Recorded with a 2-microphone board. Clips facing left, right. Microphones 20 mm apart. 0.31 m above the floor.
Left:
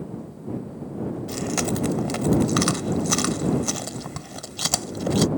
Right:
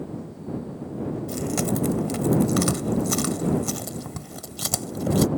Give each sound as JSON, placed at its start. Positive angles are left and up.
{"t": 1.3, "sound": "chewing", "side_deg": 25}